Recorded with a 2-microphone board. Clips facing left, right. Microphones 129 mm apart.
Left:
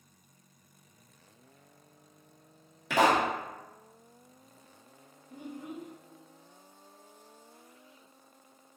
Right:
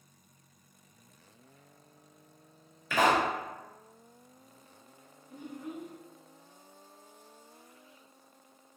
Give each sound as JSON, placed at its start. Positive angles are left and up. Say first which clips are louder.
{"t": 2.9, "sound": "a pop", "louder": "left 1 dB", "side_deg": 75, "distance_m": 1.3}
{"t": 5.3, "sound": "a child speaking", "louder": "even", "side_deg": 50, "distance_m": 1.2}